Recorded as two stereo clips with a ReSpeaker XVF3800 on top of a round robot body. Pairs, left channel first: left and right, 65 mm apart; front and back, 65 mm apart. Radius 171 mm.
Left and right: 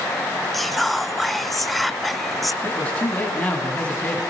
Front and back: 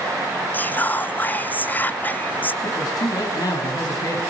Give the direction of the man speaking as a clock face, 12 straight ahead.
11 o'clock.